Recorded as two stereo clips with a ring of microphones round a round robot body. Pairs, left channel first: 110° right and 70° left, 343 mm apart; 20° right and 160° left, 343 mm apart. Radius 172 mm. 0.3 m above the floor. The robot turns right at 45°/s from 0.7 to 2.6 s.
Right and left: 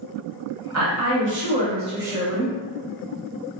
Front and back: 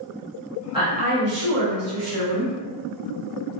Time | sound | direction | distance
0.7 | a woman speaking | 85° left | 1.1 m